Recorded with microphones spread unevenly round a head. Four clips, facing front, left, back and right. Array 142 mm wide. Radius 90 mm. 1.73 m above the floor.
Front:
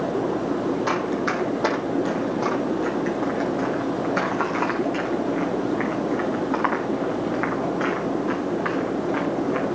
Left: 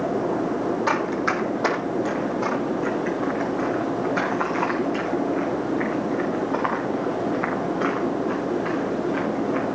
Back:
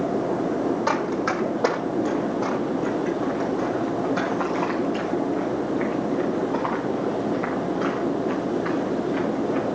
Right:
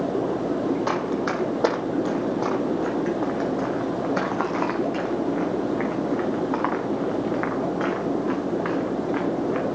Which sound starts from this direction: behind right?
Running footsteps, at 0.9 s.